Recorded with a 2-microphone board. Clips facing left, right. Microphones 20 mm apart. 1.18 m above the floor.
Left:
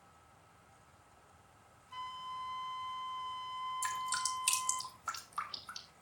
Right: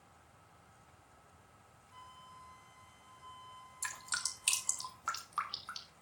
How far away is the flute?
About 0.9 m.